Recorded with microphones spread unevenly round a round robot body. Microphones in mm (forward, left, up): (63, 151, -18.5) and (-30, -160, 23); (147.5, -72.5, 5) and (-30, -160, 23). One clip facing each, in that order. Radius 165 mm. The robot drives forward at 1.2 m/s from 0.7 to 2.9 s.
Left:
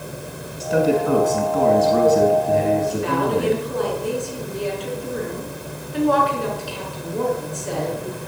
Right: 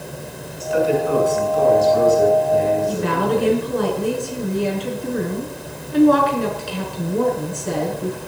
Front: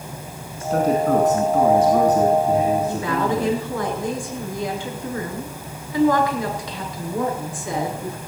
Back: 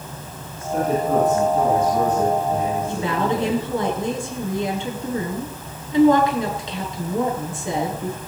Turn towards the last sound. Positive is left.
turn(degrees=-90)